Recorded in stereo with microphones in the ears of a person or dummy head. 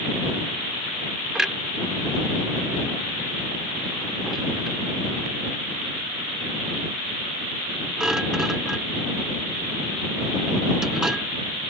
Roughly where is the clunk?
Centre.